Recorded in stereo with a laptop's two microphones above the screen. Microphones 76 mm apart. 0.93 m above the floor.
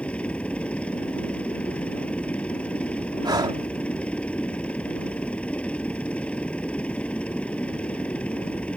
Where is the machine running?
15° left (ahead or behind).